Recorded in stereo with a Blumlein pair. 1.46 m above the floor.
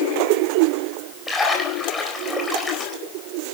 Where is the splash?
10° left, 4.5 m.